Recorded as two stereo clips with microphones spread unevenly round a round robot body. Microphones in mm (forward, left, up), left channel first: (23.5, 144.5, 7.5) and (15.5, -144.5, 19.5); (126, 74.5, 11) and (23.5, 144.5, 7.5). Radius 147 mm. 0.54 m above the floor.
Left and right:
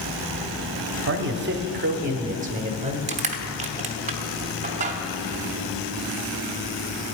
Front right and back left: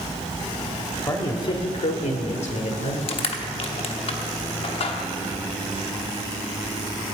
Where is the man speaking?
90° right, 0.9 m; by 3.0 s 25° right, 1.8 m.